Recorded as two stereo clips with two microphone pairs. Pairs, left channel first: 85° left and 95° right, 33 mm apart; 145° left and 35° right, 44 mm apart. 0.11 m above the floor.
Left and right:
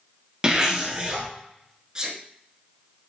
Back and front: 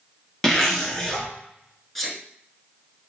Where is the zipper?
140° right, 1.5 m.